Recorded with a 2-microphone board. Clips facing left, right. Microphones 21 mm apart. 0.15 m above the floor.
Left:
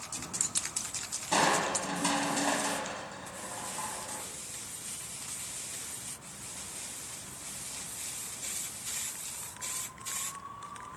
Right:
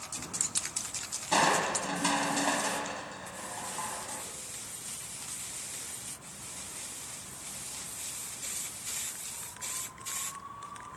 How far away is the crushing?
About 4 m.